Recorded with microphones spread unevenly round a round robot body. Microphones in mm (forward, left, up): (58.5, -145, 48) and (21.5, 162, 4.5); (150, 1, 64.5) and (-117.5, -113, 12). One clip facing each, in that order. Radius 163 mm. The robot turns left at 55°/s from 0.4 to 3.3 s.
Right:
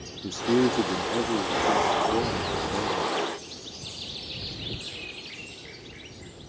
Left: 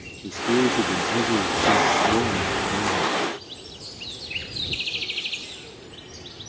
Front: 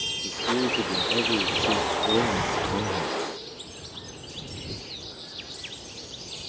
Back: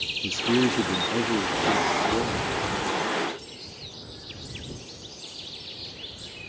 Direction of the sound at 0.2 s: 175° right.